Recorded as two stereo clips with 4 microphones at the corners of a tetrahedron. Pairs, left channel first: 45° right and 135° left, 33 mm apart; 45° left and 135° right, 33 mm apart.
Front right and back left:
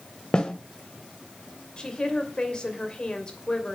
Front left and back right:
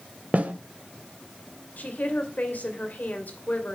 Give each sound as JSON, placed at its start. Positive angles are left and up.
{"t": 0.3, "sound": "a snare drum", "azimuth_deg": -105, "distance_m": 1.5}
{"t": 1.8, "sound": "a woman speaking", "azimuth_deg": 15, "distance_m": 2.5}